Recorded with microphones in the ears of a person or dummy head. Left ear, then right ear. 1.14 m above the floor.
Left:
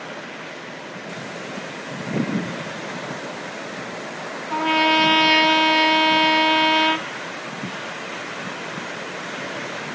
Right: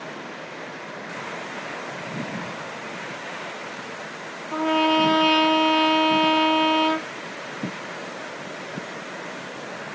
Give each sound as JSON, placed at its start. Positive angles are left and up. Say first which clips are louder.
{"t": 4.5, "sound": "a trumpet", "louder": "left 3 dB", "side_deg": 20, "distance_m": 3.5}